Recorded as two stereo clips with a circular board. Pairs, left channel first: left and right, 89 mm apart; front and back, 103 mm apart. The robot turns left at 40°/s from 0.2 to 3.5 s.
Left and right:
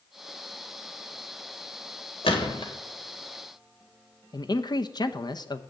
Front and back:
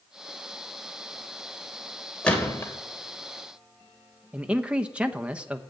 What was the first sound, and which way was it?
A gunshot, 80° left.